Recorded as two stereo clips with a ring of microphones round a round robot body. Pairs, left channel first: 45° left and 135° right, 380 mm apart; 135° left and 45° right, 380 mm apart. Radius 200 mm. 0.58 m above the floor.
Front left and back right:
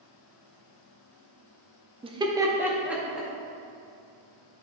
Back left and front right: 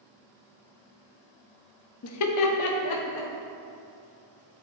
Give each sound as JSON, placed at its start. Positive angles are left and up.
{"t": 2.0, "sound": "laughter", "azimuth_deg": 155, "distance_m": 0.7}